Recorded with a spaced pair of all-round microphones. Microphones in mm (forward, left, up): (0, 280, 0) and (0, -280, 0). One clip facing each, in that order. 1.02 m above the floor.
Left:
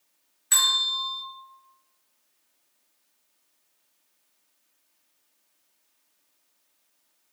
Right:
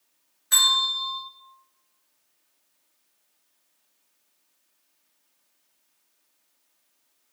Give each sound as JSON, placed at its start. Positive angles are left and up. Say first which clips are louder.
{"t": 0.5, "sound": "a bell", "louder": "right 3 dB", "side_deg": 50, "distance_m": 0.8}